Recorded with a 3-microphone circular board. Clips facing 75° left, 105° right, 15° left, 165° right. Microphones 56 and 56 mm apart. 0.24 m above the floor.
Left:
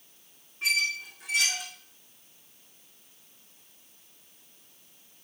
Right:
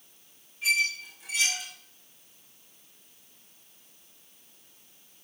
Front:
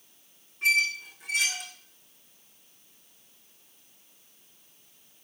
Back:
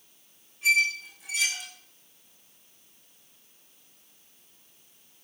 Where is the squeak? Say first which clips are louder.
Right 1 dB, back 1 dB; 45° left, 5 m.